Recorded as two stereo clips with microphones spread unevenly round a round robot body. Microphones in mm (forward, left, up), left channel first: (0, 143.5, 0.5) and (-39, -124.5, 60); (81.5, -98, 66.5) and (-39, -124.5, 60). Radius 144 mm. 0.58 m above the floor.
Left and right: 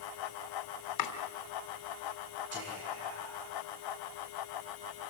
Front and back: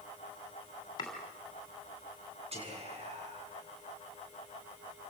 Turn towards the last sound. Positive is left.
turn(degrees=-135)